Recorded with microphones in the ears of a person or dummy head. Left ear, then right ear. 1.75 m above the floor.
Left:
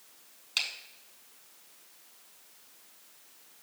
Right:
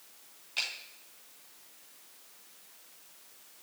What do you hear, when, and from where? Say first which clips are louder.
0.6 s a finger snap: left 2 dB; 45° left (ahead or behind), 4 m